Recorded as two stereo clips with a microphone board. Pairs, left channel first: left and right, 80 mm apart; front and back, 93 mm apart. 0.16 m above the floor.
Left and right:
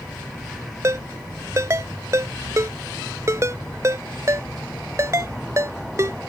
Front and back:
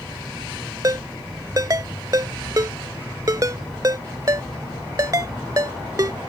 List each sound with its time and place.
0.8 s a ringtone: 135° right